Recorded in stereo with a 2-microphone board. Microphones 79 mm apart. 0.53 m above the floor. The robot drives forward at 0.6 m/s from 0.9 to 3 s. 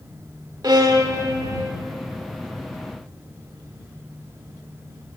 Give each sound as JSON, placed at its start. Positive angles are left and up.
{"t": 0.6, "sound": "a violin", "side_deg": -55, "distance_m": 1.1}